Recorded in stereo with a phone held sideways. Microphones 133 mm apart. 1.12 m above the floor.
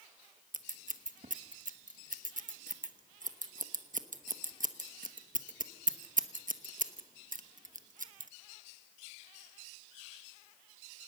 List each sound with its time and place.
0.5 s scissors: 80° right, 1.1 m